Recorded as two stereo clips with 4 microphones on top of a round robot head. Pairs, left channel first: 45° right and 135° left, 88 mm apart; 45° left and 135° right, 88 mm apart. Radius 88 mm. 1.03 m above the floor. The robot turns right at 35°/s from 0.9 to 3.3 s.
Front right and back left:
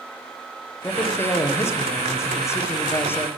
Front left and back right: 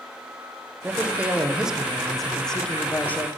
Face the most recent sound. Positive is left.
turn(degrees=-5)